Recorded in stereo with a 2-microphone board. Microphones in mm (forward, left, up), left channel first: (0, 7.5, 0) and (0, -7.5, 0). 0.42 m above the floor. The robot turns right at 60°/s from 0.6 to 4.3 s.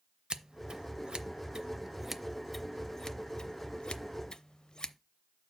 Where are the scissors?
70° right (ahead or behind), 0.5 m; by 4.9 s 65° left (ahead or behind), 0.5 m.